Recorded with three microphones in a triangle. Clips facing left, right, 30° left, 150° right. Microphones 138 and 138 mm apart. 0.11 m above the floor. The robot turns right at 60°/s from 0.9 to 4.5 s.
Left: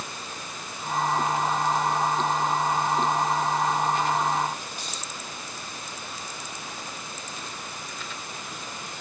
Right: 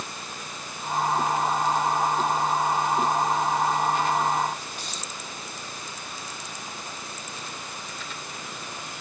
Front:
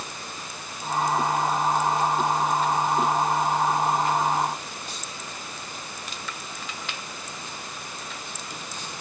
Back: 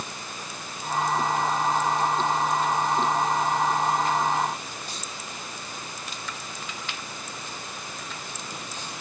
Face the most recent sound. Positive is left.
No sound to turn to.